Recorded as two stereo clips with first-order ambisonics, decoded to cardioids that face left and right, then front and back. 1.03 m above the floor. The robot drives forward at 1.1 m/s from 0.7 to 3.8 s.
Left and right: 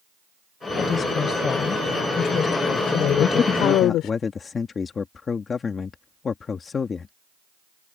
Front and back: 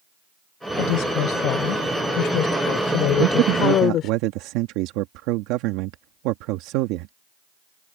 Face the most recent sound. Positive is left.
turn(degrees=160)